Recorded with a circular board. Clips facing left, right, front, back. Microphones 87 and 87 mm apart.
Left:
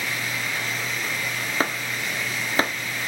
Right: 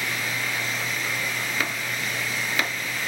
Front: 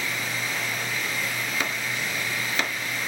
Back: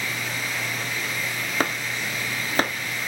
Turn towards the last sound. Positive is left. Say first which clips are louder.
# left 2 dB, back 3 dB
turn(degrees=140)